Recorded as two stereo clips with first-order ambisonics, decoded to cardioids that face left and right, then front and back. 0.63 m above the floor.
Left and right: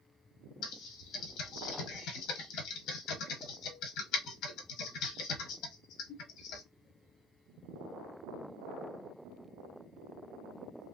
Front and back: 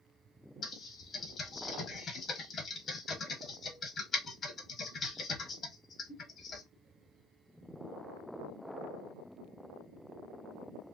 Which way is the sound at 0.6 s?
70° left.